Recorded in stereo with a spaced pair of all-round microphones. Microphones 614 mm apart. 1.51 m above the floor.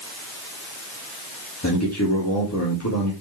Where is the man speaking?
25° left (ahead or behind), 3 m.